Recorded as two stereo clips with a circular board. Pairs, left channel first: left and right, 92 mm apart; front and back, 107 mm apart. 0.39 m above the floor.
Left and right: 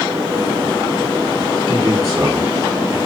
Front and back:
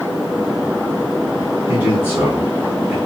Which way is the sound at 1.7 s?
115° right.